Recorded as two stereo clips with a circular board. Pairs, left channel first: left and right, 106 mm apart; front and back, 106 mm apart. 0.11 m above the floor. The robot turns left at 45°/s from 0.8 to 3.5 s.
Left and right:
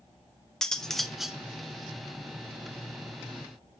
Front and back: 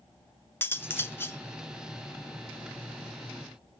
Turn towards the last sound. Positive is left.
turn(degrees=-105)